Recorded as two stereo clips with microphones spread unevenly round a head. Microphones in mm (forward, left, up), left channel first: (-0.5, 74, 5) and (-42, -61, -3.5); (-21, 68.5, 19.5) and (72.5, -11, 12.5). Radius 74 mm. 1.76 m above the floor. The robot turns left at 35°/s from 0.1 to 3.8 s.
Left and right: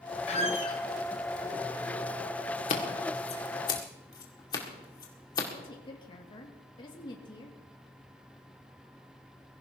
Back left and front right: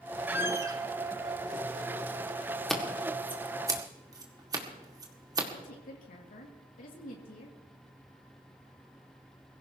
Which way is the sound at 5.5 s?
130° left.